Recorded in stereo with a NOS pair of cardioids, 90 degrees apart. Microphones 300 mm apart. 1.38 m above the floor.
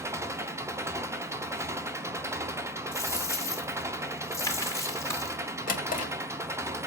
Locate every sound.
0.0 s an engine running: 10° right, 0.7 m
2.9 s a dropped coin: 10° left, 2 m
5.7 s a drawer: 25° left, 1.8 m